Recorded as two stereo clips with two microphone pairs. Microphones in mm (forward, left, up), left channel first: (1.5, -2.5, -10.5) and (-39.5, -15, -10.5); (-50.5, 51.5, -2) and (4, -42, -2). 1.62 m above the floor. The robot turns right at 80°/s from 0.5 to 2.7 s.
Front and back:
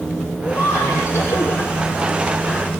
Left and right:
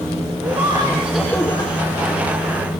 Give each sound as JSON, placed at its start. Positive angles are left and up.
{"t": 0.4, "sound": "laughter", "azimuth_deg": -25, "distance_m": 6.5}